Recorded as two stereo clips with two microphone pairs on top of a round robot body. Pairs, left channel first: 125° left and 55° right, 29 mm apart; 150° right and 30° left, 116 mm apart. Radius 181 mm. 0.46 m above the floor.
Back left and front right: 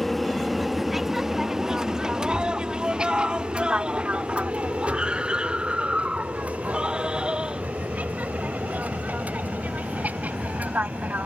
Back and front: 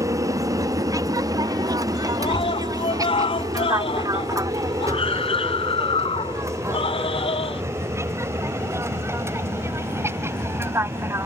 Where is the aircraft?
40° left; by 11.3 s 40° right.